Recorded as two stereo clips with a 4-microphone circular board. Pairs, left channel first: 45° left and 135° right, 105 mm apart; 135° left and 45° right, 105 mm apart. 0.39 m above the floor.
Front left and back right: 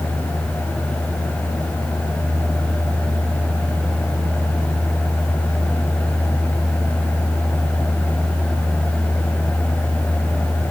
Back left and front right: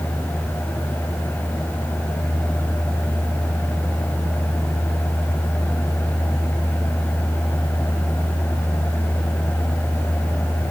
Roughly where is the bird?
No bird in this recording.